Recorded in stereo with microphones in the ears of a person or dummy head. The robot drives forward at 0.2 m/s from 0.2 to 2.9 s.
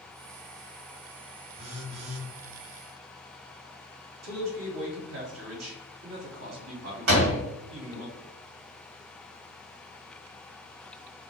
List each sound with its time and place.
1.6 s a phone buzzing: 40° right (ahead or behind), 0.9 m; by 2.3 s 45° right (ahead or behind), 0.8 m
4.2 s a man speaking: 75° right (ahead or behind), 1.3 m
7.1 s a door slam: 70° right (ahead or behind), 1.0 m